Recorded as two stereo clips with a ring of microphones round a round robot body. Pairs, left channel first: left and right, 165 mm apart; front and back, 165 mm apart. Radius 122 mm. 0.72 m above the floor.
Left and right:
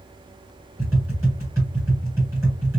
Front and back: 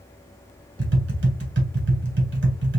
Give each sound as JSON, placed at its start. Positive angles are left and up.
{"t": 0.8, "sound": "tapping", "azimuth_deg": -170, "distance_m": 2.0}